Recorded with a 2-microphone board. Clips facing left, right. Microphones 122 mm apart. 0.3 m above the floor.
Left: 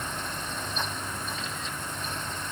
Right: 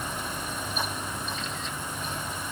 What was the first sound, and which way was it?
Only background noise.